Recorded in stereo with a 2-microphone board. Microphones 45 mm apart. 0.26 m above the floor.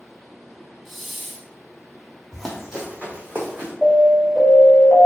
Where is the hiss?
Centre (ahead or behind), 0.6 m.